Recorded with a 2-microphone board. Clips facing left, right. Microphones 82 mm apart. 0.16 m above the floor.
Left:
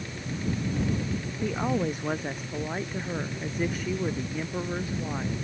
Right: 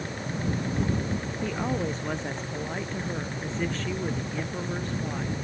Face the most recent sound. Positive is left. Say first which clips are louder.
# left 3 dB
turn(degrees=10)  # may be behind; listen again after turning